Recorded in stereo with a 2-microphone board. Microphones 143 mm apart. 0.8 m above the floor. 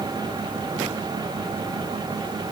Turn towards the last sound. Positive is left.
No sound to turn to.